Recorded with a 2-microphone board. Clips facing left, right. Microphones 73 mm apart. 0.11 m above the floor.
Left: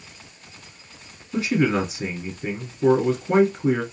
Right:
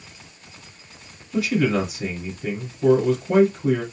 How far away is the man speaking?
About 1.5 m.